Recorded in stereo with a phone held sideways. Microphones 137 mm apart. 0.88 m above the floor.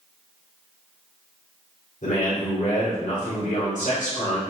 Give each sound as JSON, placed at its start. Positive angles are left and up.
{"t": 2.0, "sound": "a man speaking", "side_deg": 70, "distance_m": 2.0}